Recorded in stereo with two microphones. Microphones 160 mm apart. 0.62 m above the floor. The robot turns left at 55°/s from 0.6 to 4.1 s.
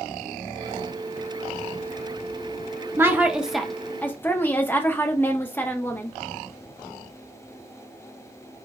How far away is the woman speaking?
About 0.6 m.